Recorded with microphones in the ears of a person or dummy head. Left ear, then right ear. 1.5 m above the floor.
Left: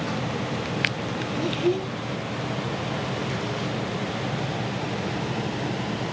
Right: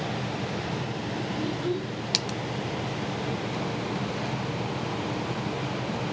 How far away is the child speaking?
About 1.7 m.